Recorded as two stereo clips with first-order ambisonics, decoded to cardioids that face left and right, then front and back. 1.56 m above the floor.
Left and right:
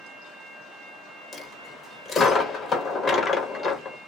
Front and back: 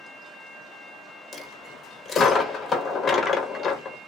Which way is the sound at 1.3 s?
55° left.